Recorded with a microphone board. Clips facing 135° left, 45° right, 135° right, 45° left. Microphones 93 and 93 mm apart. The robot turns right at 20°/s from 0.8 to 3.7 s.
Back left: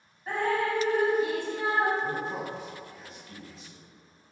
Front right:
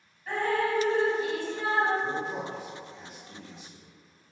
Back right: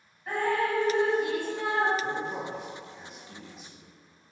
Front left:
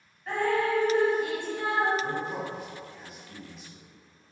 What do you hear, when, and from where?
0.3 s dripping: 150° left, 1.4 m; by 1.9 s 175° left, 1.4 m
2.0 s a man speaking: 105° left, 1.1 m; by 3.9 s 140° left, 1.1 m